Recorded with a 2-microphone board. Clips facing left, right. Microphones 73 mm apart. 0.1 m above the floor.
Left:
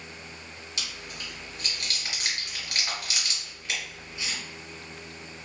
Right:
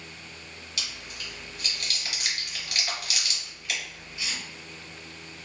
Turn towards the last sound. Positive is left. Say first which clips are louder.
# even
turn(degrees=30)  # may be behind; listen again after turning